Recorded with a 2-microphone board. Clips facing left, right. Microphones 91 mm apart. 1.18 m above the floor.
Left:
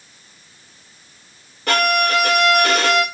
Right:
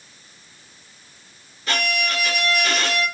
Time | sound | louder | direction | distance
1.7 | a violin | left 7 dB | 60° left (ahead or behind) | 3.5 m